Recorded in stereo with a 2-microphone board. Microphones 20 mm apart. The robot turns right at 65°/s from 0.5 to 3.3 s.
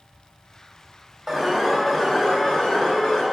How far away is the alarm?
About 2.5 m.